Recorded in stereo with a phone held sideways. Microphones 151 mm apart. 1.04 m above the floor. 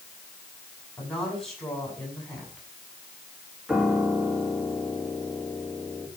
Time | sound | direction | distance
1.0 | a woman speaking | 5° left (ahead or behind) | 7.5 m
3.7 | a piano | centre (ahead or behind) | 1.7 m